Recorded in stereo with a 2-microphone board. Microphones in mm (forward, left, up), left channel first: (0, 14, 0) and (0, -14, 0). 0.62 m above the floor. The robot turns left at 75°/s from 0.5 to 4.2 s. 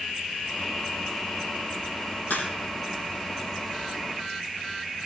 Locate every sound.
2.3 s a crack: 85° left, 5 m; by 2.5 s 80° left, 5 m